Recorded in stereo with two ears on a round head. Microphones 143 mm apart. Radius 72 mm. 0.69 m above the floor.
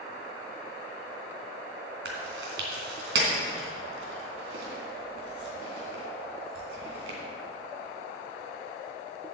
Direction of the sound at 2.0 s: 85° right.